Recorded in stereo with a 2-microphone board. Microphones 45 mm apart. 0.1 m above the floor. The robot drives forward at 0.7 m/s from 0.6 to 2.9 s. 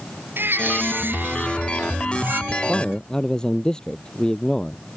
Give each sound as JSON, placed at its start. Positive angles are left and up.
{"t": 0.4, "sound": "a baby crying", "side_deg": -50}
{"t": 2.5, "sound": "a man speaking", "side_deg": 15}